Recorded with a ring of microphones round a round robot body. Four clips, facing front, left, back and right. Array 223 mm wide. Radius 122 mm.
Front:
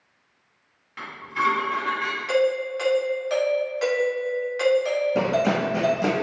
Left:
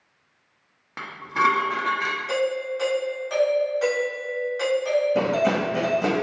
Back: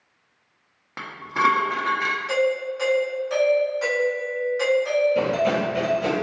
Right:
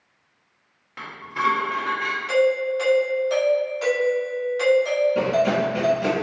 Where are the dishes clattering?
150° left, 0.7 m.